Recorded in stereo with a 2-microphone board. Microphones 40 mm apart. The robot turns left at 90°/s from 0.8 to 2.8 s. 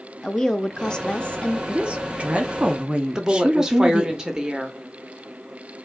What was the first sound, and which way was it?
A woman speaking, 150° left.